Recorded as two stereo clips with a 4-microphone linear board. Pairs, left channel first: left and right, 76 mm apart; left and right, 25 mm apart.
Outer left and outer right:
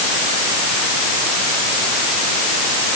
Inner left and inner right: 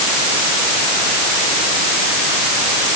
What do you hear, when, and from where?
Only background noise.